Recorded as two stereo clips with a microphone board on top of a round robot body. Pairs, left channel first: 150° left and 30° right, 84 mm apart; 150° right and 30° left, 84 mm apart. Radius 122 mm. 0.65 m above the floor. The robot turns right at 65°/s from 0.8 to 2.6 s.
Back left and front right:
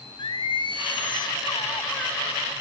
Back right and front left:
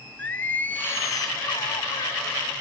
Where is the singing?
140° left, 1.1 m; by 2.2 s 130° right, 1.1 m.